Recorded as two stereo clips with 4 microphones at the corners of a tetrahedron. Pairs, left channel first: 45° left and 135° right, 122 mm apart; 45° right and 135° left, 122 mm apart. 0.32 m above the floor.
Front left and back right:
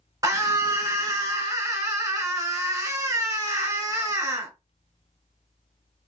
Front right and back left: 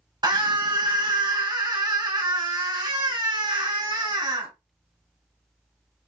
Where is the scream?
170° left, 2 m.